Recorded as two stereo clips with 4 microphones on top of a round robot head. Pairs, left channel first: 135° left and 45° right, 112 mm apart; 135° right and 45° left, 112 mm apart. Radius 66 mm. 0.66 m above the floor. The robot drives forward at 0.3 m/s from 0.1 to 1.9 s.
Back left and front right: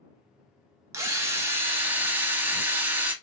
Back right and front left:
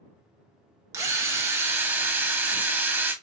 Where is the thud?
No thud in this recording.